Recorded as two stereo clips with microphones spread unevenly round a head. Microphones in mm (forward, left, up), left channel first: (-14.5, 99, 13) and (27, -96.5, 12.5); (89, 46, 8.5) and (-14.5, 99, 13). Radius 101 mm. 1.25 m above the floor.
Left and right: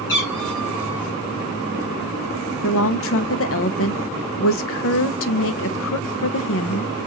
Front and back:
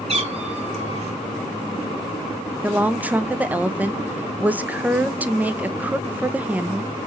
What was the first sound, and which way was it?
A cat meowing, 130° left.